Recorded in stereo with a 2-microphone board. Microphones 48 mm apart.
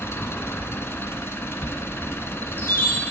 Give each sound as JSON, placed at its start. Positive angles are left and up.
{"t": 0.0, "sound": "an engine running", "side_deg": 60, "distance_m": 0.7}
{"t": 1.6, "sound": "a chime", "side_deg": 40, "distance_m": 2.5}